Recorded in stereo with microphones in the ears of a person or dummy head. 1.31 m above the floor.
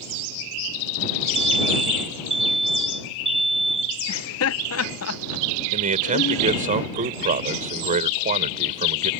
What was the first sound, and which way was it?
An alarm, 35° right (ahead or behind).